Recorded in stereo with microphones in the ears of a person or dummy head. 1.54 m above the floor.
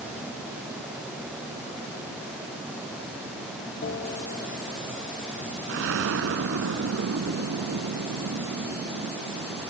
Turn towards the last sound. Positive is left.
turn(degrees=-65)  # may be behind; listen again after turning